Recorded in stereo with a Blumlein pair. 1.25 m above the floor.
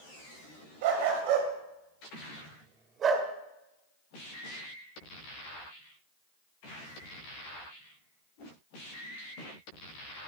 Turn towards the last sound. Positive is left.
turn(degrees=-25)